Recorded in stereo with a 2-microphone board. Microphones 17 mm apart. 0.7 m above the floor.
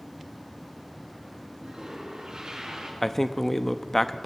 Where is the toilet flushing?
50° right (ahead or behind), 5 m.